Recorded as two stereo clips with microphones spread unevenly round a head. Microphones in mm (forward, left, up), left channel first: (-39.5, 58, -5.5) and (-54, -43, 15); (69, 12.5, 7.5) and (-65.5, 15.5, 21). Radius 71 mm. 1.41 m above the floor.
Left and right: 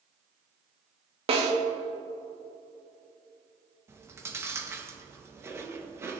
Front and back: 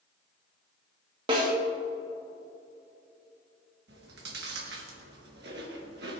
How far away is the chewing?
About 1.6 m.